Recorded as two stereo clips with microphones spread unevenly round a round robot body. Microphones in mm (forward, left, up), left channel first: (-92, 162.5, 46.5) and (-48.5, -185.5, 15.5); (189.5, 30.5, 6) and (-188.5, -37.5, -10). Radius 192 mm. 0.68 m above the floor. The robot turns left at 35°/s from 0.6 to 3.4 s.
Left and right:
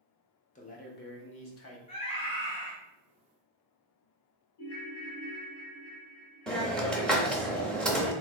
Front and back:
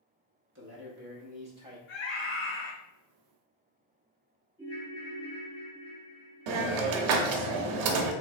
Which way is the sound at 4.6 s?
95° left.